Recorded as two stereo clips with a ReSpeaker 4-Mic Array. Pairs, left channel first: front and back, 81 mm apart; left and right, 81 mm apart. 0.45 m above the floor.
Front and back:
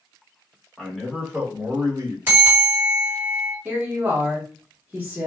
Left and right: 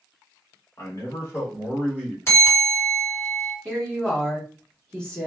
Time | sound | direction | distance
0.8 | a man speaking | 75° left | 1.2 m
2.3 | a bell | 130° left | 1.8 m
3.6 | a woman speaking | 145° left | 1.2 m